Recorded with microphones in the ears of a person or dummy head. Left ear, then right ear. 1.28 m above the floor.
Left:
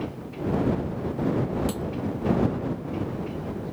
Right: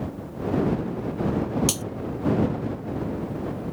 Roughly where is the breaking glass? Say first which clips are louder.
Right 4 dB; right.